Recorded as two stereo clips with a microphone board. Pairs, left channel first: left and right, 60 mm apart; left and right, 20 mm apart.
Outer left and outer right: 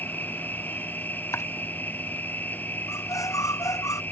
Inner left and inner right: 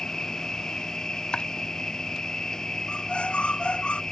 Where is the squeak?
70° left (ahead or behind).